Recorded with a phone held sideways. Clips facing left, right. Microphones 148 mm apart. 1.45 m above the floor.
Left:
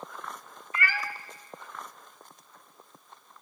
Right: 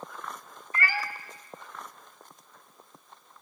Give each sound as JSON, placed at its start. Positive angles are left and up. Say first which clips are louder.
{"t": 0.7, "sound": "a cat meowing", "louder": "right 1 dB", "side_deg": -35, "distance_m": 1.2}